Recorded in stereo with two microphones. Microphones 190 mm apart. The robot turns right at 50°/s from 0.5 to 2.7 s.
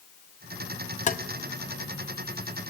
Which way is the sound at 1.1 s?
40° left (ahead or behind).